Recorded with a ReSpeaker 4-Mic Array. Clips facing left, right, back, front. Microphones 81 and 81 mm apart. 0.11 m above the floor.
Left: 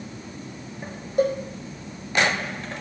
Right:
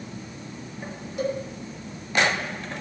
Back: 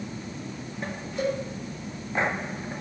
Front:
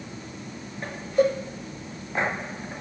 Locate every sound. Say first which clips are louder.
1.2 s a cowbell: left 6 dB, front 7 dB; 45° left, 2.5 m